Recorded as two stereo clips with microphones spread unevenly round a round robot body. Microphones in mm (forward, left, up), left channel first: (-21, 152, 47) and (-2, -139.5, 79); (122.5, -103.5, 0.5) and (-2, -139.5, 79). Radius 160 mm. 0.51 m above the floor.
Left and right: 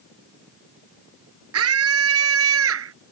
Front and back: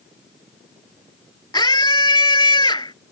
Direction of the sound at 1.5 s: 40° right.